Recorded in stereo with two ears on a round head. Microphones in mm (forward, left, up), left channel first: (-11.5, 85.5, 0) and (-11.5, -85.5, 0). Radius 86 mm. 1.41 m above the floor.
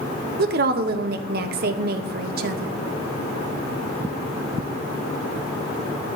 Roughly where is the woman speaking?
Right.